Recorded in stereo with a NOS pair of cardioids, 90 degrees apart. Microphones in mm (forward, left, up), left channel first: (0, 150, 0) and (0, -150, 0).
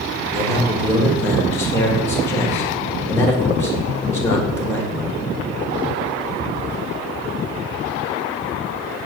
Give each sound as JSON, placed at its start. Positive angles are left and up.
{"t": 0.3, "sound": "a man speaking", "azimuth_deg": 10, "distance_m": 1.5}